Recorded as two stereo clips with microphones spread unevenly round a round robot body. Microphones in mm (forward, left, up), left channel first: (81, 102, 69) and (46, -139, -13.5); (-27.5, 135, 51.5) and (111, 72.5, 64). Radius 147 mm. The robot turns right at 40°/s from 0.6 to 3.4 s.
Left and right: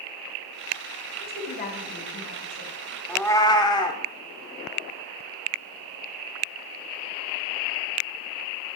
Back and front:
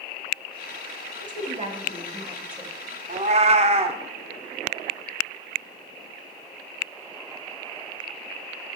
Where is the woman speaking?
5° left, 1.8 m; by 2.7 s 65° left, 1.8 m.